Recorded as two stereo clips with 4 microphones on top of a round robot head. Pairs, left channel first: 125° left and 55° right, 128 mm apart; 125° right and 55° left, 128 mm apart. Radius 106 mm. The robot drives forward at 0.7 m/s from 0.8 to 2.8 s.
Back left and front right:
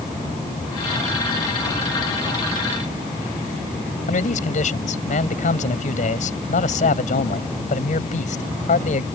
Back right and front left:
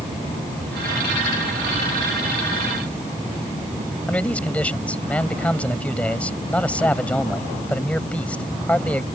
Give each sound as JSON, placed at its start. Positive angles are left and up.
{"t": 4.1, "sound": "a man speaking", "azimuth_deg": 155}